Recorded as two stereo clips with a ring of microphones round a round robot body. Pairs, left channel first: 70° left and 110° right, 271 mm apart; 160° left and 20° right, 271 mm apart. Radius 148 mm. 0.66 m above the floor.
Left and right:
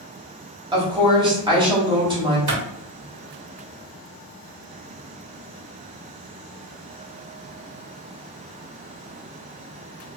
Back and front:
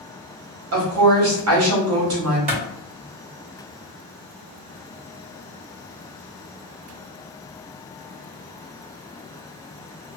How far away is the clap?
About 1.9 m.